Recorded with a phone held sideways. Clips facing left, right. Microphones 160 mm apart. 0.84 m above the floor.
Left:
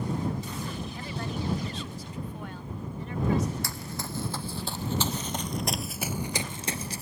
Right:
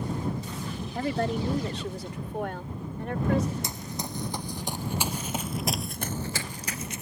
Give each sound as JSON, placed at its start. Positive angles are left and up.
{"t": 0.9, "sound": "a woman speaking", "side_deg": -70}
{"t": 3.6, "sound": "running footsteps", "side_deg": -20}